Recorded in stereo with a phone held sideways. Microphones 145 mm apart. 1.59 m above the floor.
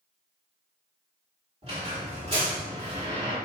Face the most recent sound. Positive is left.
turn(degrees=-40)  # may be behind; listen again after turning